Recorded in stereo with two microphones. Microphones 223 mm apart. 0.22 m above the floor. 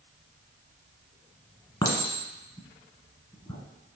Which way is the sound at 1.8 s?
20° left (ahead or behind).